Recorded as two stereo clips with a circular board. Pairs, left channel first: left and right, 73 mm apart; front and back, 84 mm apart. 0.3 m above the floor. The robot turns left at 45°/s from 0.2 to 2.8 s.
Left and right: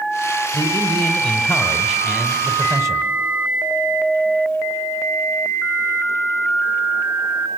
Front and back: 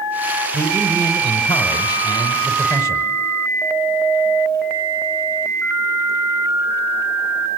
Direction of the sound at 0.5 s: 50° left.